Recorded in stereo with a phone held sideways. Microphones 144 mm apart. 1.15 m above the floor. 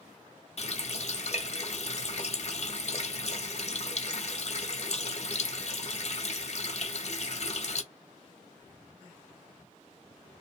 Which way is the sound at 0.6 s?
50° left (ahead or behind).